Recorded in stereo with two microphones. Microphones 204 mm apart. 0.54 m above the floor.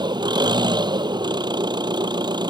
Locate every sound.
0.0 s an engine running: 20° right (ahead or behind)